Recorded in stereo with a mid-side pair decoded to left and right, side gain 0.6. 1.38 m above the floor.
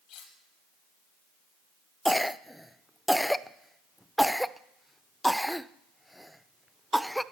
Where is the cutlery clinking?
60° left, 4 m.